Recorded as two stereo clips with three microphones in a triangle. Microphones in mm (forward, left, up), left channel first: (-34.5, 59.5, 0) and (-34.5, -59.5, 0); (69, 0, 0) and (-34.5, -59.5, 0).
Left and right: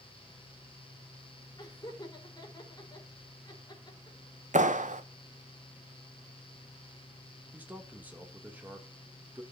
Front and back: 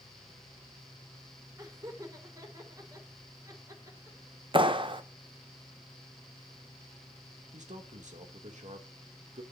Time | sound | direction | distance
1.6 | laughter | 145° left | 4 m
4.5 | a clap | 100° right | 0.8 m
7.5 | a man speaking | 165° right | 2.5 m